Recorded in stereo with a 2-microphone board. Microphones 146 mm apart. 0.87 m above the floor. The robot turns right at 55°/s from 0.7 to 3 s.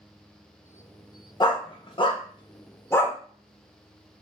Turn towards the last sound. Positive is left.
turn(degrees=15)  # may be behind; listen again after turning